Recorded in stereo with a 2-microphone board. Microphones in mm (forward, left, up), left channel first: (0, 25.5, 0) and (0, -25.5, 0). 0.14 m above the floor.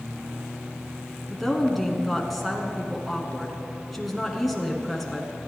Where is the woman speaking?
Centre (ahead or behind), 1.4 m.